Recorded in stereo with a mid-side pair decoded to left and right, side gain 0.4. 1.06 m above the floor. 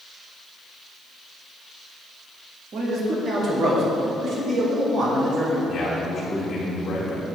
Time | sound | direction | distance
2.7 | a man speaking | 60° right | 1.9 m
5.7 | a man speaking | 60° left | 2.0 m